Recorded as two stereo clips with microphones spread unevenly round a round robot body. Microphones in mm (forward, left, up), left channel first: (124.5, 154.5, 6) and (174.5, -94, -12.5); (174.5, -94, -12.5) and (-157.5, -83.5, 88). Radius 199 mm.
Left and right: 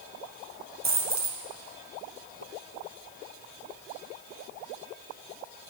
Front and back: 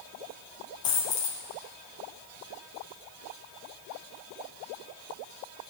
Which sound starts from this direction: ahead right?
A dropped coin, at 0.8 s.